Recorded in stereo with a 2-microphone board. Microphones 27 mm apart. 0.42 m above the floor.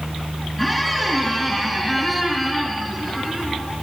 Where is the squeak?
5° left (ahead or behind), 4 m.